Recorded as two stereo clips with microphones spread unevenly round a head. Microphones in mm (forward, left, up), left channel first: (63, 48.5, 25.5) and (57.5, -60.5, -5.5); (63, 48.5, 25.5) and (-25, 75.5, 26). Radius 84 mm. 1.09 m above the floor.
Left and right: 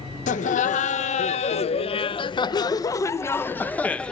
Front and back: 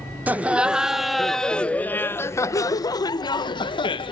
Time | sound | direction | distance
0.3 | laughter | 90° left | 1.4 m